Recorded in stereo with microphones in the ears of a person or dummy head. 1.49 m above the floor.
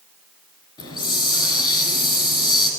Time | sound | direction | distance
0.8 | a hiss | 25° left (ahead or behind) | 2.5 m